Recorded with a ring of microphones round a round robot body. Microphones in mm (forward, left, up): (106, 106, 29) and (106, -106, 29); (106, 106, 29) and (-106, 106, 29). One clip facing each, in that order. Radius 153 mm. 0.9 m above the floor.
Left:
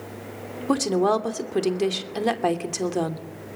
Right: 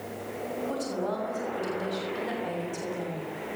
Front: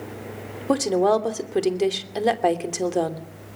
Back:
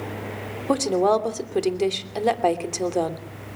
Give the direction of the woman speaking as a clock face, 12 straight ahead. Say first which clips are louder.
Left 13 dB, front 1 dB; 9 o'clock.